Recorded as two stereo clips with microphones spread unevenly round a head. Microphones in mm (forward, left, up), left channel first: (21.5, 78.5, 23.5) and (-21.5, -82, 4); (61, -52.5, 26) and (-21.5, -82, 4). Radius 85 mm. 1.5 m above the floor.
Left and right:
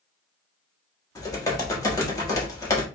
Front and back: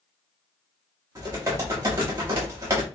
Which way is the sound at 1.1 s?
125° left.